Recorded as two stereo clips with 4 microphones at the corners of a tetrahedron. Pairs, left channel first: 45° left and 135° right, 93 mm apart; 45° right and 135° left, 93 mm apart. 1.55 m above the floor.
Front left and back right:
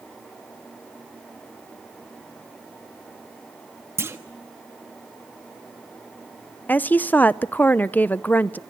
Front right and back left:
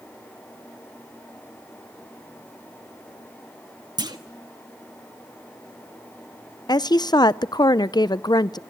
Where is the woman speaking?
20° right, 0.6 m.